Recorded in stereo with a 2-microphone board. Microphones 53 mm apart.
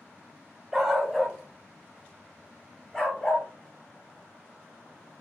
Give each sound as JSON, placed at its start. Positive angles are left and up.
{"t": 0.7, "sound": "a dog barking", "side_deg": -10, "distance_m": 0.6}